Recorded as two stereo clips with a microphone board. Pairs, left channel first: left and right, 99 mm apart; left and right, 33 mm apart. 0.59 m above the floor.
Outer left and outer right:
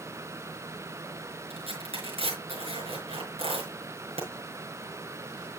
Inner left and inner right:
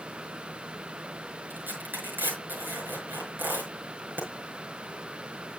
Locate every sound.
1.5 s tearing paper: 85° right, 6 m